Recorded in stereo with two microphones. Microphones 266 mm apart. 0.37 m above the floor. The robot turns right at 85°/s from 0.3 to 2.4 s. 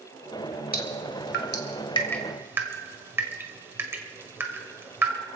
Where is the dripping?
35° left (ahead or behind), 1.8 m; by 5.1 s 10° right (ahead or behind), 1.8 m.